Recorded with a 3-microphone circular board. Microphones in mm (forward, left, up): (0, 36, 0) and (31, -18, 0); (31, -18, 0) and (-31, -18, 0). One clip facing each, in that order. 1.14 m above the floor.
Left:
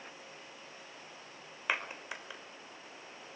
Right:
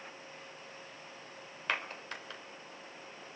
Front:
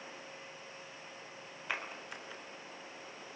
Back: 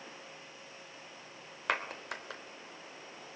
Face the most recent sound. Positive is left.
turn(degrees=-160)